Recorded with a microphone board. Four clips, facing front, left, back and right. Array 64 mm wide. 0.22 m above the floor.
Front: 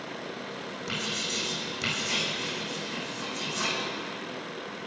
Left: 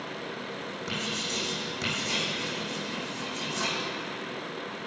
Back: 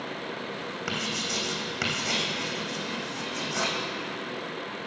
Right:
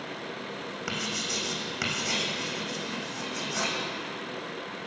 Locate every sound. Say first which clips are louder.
0.9 s writing: even, back 2 dB; 140° right, 3 m